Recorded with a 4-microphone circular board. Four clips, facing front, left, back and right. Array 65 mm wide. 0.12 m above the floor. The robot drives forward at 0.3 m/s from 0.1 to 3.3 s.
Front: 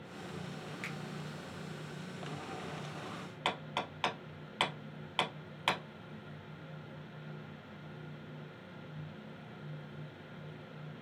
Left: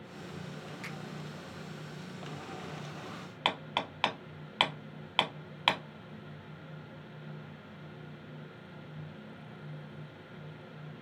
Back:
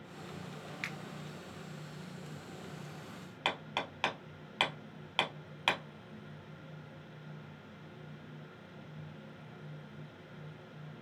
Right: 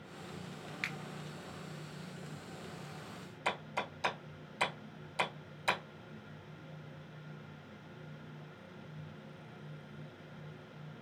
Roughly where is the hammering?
Left.